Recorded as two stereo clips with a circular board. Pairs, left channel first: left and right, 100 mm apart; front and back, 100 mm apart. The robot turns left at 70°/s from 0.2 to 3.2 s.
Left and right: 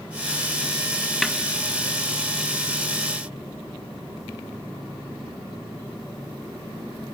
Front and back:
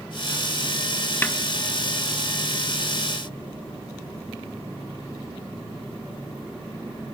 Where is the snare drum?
Straight ahead, 0.6 m; by 1.4 s 10° right, 0.6 m.